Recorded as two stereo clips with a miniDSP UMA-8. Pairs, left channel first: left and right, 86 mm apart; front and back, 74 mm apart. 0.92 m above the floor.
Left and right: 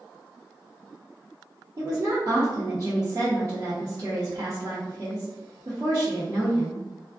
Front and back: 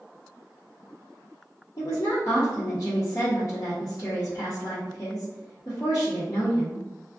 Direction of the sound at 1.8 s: 40° right.